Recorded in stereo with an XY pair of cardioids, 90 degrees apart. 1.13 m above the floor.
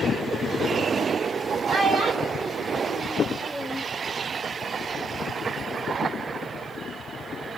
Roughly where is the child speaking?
Ahead right.